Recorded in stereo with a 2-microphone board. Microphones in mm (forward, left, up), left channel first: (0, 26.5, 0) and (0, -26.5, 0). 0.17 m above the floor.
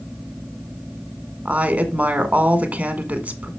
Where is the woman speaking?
25° right (ahead or behind), 1.6 m.